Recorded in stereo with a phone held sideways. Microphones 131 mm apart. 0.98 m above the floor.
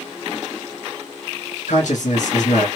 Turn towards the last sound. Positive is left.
turn(degrees=75)  # may be behind; listen again after turning